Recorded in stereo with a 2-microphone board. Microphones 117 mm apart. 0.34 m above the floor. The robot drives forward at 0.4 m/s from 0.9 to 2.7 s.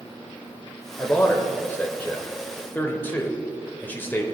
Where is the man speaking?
15° left (ahead or behind), 0.9 m.